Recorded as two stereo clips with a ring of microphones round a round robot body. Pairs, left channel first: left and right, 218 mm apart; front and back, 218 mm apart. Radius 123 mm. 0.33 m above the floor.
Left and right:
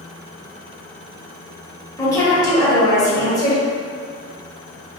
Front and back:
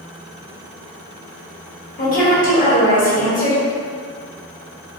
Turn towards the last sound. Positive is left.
turn(degrees=25)